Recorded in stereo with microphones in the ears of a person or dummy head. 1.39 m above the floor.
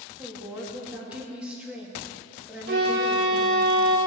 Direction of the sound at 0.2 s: 5° right (ahead or behind).